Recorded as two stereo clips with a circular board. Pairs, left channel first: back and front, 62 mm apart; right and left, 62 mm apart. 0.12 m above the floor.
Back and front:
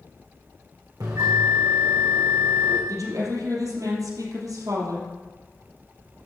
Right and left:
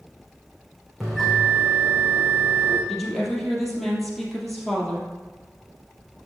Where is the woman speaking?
Straight ahead, 3.5 m.